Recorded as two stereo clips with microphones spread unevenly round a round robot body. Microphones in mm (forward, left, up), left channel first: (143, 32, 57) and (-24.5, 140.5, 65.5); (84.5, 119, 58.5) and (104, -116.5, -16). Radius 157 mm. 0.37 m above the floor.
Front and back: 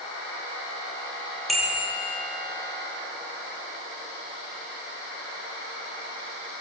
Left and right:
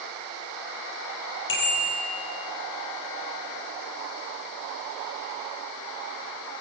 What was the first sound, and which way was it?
A bicycle bell, 55° left.